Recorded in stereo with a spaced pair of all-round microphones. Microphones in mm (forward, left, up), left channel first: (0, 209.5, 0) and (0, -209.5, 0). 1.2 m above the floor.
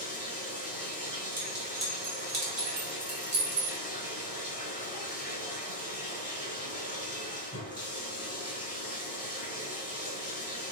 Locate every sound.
0.0 s running water: 20° left (ahead or behind), 0.9 m
1.4 s a clink: 80° right, 1.5 m